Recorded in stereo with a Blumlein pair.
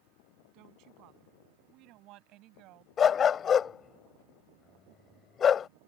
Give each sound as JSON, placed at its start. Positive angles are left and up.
{"t": 0.5, "sound": "a woman speaking", "azimuth_deg": -40}
{"t": 3.0, "sound": "a dog barking", "azimuth_deg": 25}